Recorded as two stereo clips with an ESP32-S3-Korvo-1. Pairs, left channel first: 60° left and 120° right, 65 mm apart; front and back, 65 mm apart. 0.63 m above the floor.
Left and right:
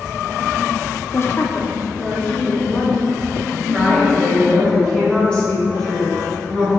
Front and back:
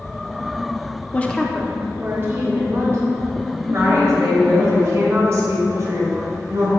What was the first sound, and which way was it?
A woman speaking, 45° left.